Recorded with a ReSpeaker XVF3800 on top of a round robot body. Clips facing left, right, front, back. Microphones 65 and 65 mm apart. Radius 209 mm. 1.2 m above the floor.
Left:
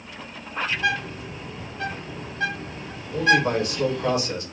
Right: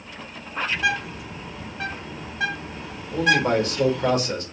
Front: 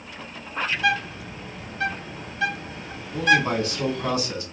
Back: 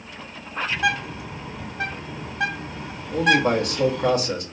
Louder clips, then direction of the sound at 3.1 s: Even, back 1 dB; 145° right.